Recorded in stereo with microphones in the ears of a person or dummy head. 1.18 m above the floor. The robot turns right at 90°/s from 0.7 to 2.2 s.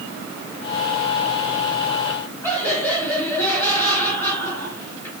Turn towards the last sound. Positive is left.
turn(degrees=10)  # may be behind; listen again after turning